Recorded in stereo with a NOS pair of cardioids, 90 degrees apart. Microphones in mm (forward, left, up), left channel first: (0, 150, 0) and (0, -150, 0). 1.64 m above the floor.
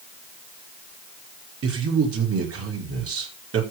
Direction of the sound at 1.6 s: 50° right.